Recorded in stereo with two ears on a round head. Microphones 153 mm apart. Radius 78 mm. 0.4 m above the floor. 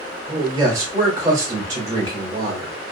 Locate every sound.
0.3 s a man speaking: 20° right (ahead or behind), 0.9 m